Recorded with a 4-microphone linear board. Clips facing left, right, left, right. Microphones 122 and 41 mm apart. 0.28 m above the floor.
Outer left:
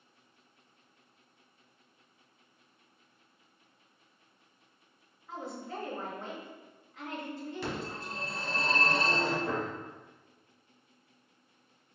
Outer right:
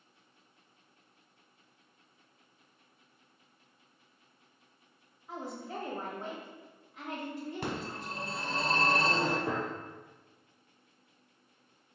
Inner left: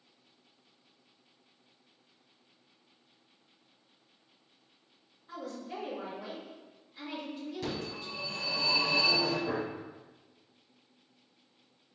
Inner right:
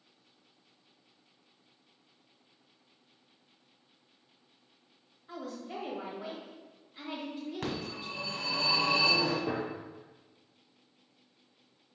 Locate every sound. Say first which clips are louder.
5.3 s a woman speaking: even, even; 15° right (ahead or behind), 1.3 m
7.6 s a phone ringing: outer left 1 dB, even; 50° right (ahead or behind), 1.4 m
9.5 s a gunshot: even, even; 30° right (ahead or behind), 2.0 m